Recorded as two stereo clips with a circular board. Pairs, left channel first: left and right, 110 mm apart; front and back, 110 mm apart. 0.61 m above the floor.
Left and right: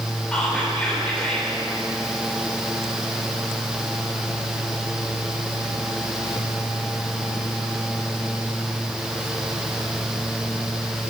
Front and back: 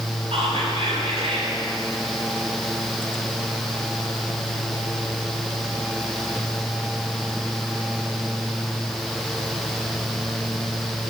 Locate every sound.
0.3 s whispering: 170° left, 2.5 m